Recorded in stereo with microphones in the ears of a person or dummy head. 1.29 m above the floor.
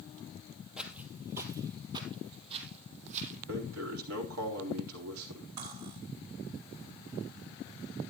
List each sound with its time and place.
0.8 s footsteps: 5° right (ahead or behind), 2 m; by 3.4 s 40° right (ahead or behind), 3.5 m
3.5 s a man speaking: 80° right, 4 m
5.6 s cutlery clinking: 50° right (ahead or behind), 3.5 m